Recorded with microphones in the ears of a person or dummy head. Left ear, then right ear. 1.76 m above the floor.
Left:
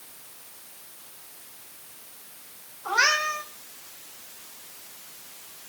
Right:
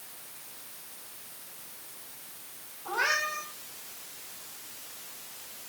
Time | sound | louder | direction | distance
2.9 | a cat meowing | left 6 dB | 65° left (ahead or behind) | 4 m